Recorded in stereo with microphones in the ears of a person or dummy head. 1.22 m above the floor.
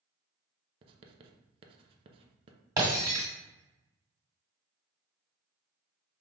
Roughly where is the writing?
Right.